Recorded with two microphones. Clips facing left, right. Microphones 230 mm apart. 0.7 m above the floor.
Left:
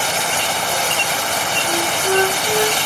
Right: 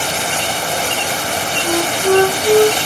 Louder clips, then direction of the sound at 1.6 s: Right 7 dB; 60° right (ahead or behind).